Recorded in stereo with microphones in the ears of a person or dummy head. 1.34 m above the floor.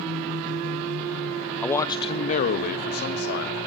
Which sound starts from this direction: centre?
A man speaking, at 1.6 s.